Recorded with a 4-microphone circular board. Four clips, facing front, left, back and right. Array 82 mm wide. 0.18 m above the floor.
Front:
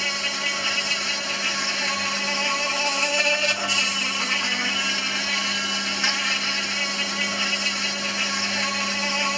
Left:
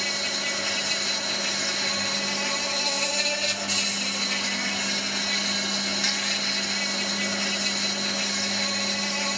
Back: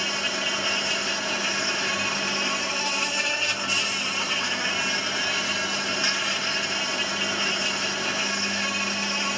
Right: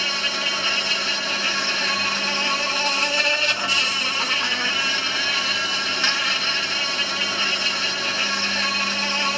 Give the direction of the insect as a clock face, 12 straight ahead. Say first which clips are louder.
Right 5 dB, front 1 dB; 3 o'clock.